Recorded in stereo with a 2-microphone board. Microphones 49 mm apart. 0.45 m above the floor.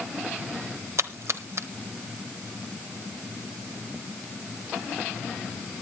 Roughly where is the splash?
Right.